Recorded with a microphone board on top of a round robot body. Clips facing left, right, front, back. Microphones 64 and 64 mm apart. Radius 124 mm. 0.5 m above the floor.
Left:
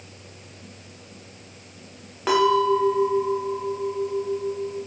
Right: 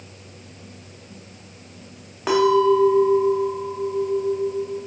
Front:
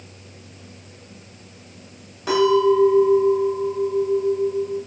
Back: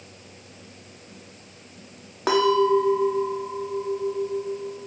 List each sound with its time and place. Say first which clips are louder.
2.3 s a clink: right 2 dB, front 3 dB; straight behind, 0.9 m